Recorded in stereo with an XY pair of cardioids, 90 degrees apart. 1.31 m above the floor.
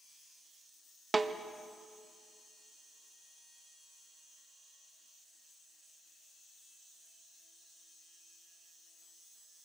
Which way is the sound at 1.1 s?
25° right.